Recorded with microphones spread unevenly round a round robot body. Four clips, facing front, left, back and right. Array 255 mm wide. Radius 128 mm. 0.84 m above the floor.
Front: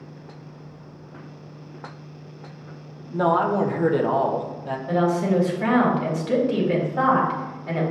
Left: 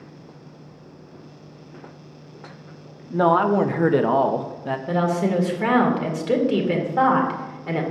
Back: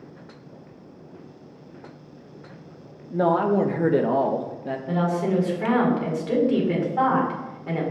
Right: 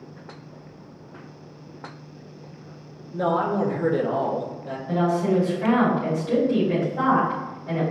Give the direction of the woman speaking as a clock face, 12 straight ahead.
9 o'clock.